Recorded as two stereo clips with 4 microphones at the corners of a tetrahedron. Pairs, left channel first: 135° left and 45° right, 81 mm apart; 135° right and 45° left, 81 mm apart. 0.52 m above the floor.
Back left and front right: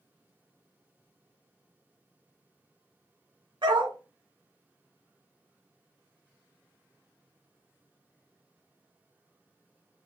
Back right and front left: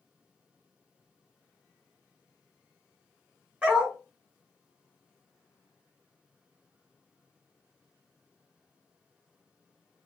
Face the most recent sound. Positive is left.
turn(degrees=-30)